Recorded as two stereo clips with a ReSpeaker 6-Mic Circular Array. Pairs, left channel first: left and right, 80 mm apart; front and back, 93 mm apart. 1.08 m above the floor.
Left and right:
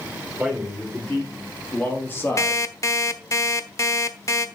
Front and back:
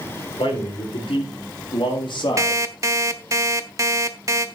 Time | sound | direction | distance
0.4 | a man speaking | 10° left | 4 m
2.4 | an alarm clock | 130° left | 1.1 m